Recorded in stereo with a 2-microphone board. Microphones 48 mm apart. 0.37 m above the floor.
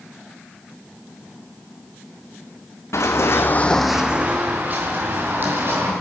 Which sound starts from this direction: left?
Running footsteps, at 2.9 s.